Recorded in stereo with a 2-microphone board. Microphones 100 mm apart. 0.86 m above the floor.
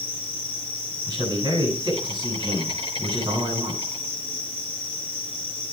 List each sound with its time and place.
0.0 s an insect: 85° right, 6 m
1.1 s a man speaking: 45° right (ahead or behind), 8.5 m